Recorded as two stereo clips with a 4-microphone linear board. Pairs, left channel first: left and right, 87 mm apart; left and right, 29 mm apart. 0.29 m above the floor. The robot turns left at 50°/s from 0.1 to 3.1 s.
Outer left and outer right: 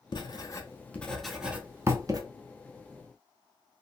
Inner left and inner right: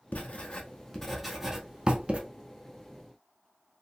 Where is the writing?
55° left (ahead or behind), 0.7 m; by 2.2 s 45° right (ahead or behind), 0.7 m.